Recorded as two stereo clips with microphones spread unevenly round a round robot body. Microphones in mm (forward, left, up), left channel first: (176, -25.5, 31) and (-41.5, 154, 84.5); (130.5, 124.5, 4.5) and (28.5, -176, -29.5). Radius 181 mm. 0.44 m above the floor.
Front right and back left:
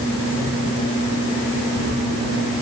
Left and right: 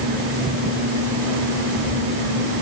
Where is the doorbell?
No doorbell in this recording.